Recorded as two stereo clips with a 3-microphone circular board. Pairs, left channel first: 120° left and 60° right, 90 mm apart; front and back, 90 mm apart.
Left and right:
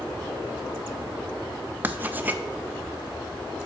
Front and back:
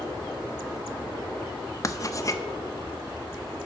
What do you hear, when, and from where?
1.8 s writing: 5° right, 0.5 m